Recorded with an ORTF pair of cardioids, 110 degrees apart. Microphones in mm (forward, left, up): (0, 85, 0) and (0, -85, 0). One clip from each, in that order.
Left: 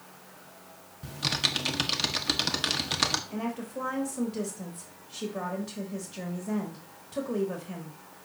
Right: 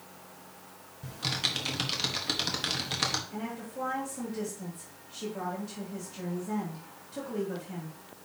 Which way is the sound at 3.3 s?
35° left.